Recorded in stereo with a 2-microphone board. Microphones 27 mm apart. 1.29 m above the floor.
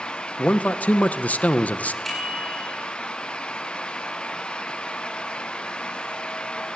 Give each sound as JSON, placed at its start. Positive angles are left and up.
{"t": 0.4, "sound": "a man speaking", "side_deg": 70, "distance_m": 1.2}
{"t": 2.0, "sound": "a bicycle bell", "side_deg": 0, "distance_m": 10.0}